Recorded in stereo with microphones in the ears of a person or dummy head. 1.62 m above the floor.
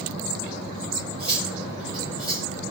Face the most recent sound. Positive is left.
turn(degrees=25)  # may be behind; listen again after turning